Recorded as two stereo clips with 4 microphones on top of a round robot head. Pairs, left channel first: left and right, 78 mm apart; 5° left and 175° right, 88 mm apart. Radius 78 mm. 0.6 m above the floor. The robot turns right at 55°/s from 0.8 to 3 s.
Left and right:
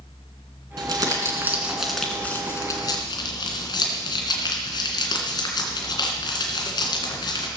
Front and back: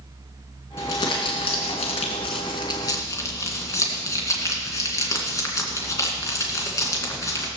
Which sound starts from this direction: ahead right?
Crumpling, at 0.8 s.